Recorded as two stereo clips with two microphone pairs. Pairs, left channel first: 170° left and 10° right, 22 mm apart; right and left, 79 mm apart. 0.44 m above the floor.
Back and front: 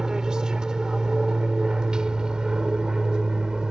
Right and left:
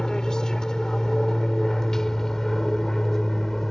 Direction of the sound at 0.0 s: 15° right.